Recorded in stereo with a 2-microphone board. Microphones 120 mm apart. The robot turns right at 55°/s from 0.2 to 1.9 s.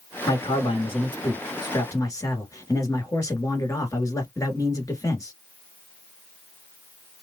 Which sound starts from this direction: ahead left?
A man speaking, at 0.3 s.